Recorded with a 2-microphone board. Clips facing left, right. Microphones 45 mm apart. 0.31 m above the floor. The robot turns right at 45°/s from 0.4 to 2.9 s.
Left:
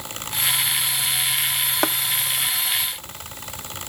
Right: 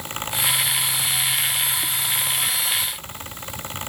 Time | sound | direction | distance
1.8 | tapping | 85° left | ?